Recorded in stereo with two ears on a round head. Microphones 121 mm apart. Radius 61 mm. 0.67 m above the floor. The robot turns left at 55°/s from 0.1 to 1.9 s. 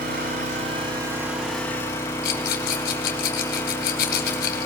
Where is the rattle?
80° left, 2.5 m.